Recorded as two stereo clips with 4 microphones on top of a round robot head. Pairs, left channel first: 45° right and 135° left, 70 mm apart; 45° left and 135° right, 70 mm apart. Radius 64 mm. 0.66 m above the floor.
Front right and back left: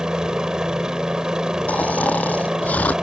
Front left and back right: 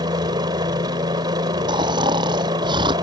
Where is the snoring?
115° right.